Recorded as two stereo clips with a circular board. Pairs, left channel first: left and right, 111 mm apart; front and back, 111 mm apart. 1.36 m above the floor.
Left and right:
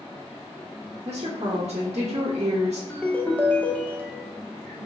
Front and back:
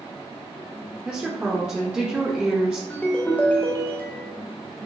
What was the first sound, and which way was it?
A woman speaking, 105° right.